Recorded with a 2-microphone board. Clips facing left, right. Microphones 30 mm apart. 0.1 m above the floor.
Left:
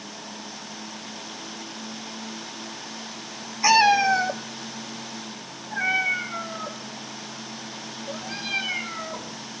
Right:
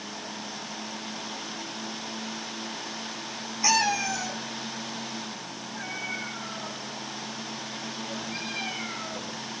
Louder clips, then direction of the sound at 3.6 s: Left 8 dB; 20° left (ahead or behind).